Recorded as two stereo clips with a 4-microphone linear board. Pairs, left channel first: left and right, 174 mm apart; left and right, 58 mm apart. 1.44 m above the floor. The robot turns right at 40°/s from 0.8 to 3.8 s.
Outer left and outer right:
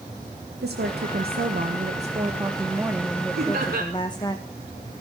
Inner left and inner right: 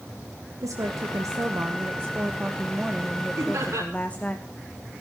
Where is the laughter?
70° right (ahead or behind), 6 m; by 3.9 s 85° right, 6 m.